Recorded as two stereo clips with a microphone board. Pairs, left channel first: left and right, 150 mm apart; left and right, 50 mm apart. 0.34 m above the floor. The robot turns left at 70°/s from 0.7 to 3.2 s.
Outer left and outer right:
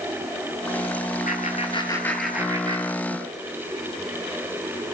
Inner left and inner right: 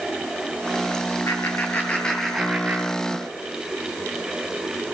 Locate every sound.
1.3 s laughter: 65° left (ahead or behind), 6.5 m; by 3.3 s 65° right (ahead or behind), 6.5 m